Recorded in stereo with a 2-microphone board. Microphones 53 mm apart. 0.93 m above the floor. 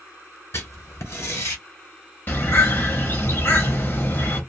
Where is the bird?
45° left (ahead or behind), 1.0 m.